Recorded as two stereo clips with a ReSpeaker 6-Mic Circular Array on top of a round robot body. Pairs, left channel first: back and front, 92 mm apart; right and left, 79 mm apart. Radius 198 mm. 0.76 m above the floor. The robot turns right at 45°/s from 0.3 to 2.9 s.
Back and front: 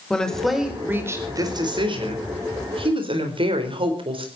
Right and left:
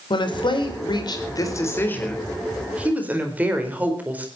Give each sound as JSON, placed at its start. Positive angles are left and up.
{"t": 0.1, "sound": "a woman speaking", "azimuth_deg": -100, "distance_m": 4.5}